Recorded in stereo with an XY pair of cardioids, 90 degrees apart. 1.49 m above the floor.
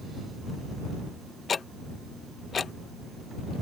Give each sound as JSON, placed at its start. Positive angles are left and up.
{"t": 1.5, "sound": "ticking", "azimuth_deg": 50}